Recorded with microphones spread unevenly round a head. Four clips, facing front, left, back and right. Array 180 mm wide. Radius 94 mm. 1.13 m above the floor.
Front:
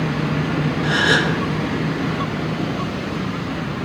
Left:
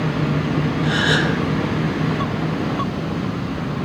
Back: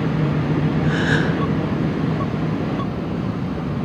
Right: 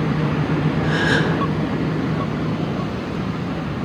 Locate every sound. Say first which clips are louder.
0.8 s a gasp: even, front 1 dB; 5° left, 2 m